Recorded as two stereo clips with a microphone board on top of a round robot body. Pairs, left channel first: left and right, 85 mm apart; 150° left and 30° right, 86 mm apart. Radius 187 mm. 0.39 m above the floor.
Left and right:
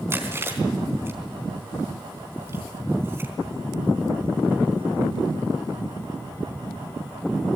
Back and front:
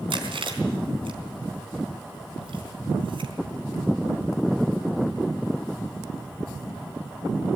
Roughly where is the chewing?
Ahead right.